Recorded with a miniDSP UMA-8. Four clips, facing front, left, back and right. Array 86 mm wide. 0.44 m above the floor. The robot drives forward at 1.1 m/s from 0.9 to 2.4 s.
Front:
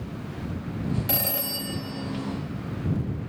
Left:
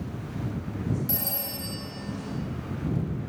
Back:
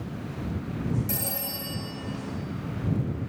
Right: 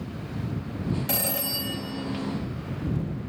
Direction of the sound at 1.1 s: 40° right.